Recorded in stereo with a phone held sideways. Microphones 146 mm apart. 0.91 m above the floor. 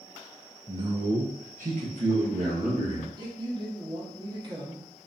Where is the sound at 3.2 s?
30° right (ahead or behind), 0.9 m.